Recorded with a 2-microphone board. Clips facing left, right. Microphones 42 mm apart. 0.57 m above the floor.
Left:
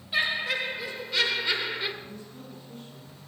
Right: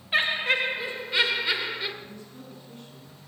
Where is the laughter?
45° right (ahead or behind), 2.0 m; by 1.9 s 5° left (ahead or behind), 1.6 m.